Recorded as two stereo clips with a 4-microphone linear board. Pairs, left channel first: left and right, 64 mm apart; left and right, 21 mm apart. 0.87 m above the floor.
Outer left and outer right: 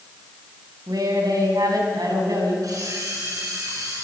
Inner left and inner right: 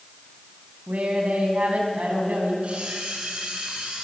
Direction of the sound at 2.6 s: 65° right (ahead or behind).